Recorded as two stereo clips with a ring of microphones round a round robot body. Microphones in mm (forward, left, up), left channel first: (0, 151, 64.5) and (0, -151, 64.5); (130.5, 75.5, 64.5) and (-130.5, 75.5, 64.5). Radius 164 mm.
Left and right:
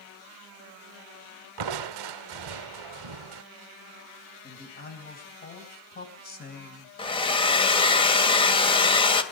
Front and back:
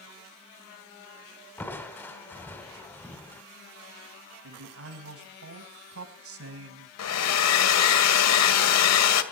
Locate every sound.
1.6 s crushing: 85° right, 0.8 m
4.4 s a man speaking: 150° left, 4.5 m
7.0 s a hair dryer: 15° left, 1.8 m